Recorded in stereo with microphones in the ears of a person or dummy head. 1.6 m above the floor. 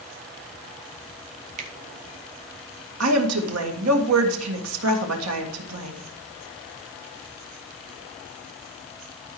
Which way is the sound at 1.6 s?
45° right (ahead or behind).